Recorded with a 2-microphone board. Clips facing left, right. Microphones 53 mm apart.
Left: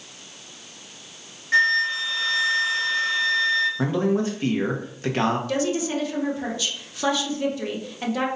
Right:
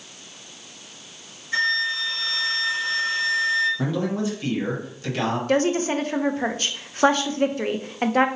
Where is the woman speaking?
40° right (ahead or behind), 0.7 m.